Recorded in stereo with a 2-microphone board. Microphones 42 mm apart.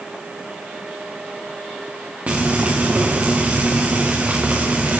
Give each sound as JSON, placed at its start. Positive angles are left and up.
{"t": 2.3, "sound": "frying", "side_deg": -40, "distance_m": 3.0}